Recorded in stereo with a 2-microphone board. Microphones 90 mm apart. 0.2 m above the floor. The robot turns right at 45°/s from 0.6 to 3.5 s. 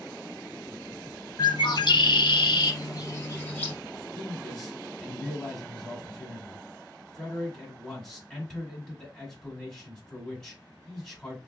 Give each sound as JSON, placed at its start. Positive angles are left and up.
{"t": 1.4, "sound": "a bird", "azimuth_deg": 55, "distance_m": 0.7}
{"t": 4.2, "sound": "a man speaking", "side_deg": 5, "distance_m": 1.7}